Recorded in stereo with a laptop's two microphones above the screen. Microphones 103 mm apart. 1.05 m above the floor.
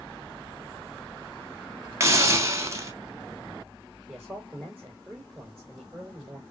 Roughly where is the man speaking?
Centre.